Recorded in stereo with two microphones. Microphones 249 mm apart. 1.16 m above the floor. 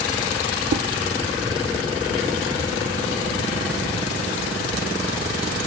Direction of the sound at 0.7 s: 75° right (ahead or behind).